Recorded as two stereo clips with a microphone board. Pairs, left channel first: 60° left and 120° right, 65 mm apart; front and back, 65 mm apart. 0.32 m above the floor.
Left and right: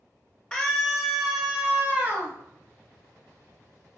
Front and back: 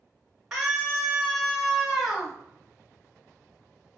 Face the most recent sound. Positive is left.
turn(degrees=-95)